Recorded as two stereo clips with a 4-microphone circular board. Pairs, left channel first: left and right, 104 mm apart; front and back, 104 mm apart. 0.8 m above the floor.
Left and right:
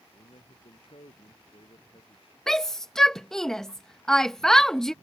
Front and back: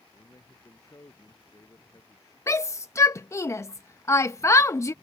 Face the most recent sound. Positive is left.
turn(degrees=10)